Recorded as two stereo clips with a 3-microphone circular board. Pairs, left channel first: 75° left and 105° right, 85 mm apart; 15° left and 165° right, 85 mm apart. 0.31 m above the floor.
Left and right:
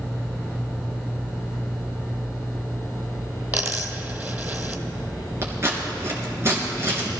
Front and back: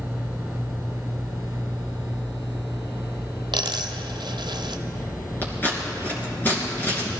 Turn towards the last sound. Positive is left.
turn(degrees=-50)